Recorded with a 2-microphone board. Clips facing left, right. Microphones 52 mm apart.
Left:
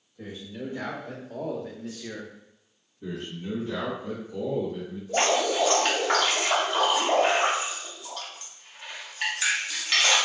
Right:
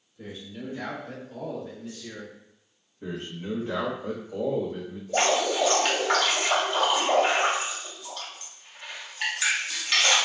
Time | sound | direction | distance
0.2 | a man speaking | 70° left (ahead or behind) | 2.0 m
3.0 | a man speaking | 65° right (ahead or behind) | 1.2 m
5.1 | dripping | centre (ahead or behind) | 1.1 m